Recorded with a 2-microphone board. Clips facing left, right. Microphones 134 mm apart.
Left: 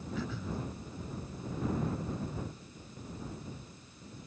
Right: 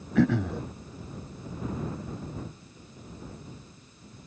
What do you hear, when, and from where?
0.1 s throat clearing: 80° right